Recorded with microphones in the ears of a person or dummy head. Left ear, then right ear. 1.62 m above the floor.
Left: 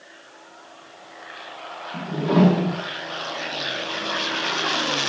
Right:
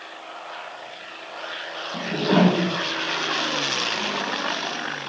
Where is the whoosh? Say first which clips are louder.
Right 1 dB; 15° right (ahead or behind), 1.7 m.